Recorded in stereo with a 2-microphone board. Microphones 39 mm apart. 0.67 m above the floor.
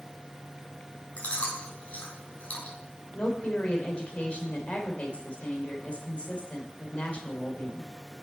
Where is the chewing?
40° left (ahead or behind), 3.5 m.